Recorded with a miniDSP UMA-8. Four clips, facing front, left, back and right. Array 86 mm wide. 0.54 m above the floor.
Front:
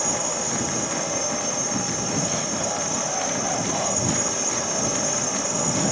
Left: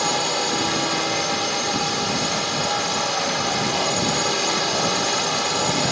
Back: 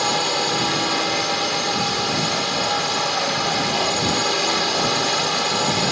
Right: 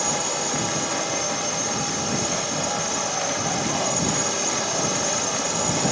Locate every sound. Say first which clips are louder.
0.0 s a drone: left 4 dB, back 6 dB; 150° left